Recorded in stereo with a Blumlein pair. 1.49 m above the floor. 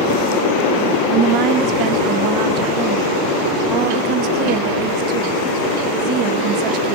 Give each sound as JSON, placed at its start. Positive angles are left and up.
{"t": 1.1, "sound": "a woman speaking", "azimuth_deg": -40, "distance_m": 1.1}